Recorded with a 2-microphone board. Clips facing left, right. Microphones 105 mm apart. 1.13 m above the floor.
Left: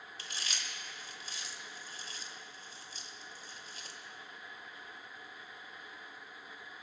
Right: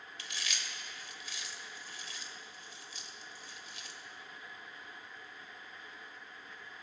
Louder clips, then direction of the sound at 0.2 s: Right 1 dB; 35° left (ahead or behind).